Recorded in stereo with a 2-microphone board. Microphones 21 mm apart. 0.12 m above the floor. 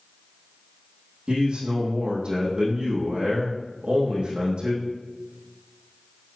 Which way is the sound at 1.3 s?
55° right (ahead or behind).